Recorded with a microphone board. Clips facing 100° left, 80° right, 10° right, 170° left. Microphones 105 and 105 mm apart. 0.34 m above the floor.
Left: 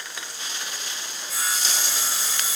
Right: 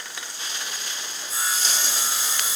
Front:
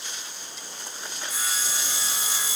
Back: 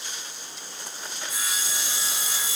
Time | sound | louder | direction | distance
1.3 | sawing | right 1 dB, front 1 dB | 45° right | 1.1 m